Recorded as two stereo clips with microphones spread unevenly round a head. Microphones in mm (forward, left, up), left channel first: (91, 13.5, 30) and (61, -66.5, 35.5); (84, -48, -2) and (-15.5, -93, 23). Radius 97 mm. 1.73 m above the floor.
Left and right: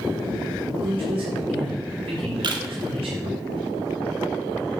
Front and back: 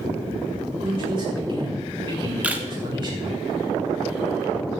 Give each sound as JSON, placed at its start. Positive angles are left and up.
{"t": 0.8, "sound": "a man speaking", "azimuth_deg": -110, "distance_m": 6.5}
{"t": 2.4, "sound": "a camera shutter", "azimuth_deg": -80, "distance_m": 2.5}